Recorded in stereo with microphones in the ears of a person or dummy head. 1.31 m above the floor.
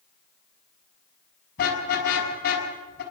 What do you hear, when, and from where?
1.6 s a car horn: 50° left (ahead or behind), 6.5 m